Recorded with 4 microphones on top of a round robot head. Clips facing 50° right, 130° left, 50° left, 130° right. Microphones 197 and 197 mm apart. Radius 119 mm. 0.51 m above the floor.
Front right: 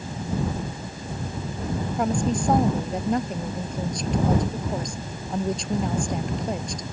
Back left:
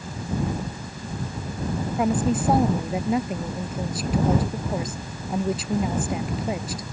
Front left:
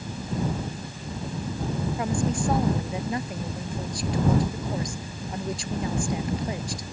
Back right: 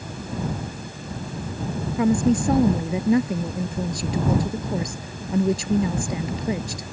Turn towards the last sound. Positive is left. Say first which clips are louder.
# back left 2 dB, back right 11 dB
turn(degrees=-145)